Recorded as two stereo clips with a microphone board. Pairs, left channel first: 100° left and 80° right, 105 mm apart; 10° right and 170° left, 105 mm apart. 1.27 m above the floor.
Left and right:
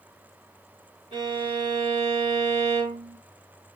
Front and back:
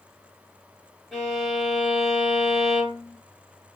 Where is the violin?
100° right, 2.5 m.